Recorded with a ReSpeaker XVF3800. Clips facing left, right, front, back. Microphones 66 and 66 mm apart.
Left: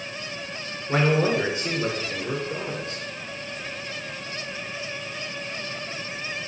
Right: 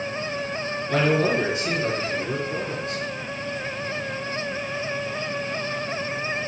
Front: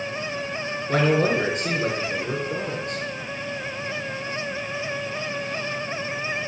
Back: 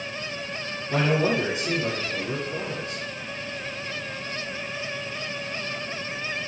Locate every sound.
0.9 s a man speaking: 30° left, 3.5 m